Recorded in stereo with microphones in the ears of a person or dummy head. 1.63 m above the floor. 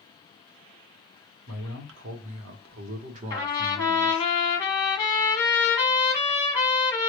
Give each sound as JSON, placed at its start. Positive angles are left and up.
{"t": 1.5, "sound": "a man speaking", "side_deg": -80, "distance_m": 1.4}
{"t": 3.3, "sound": "a trumpet", "side_deg": 20, "distance_m": 1.2}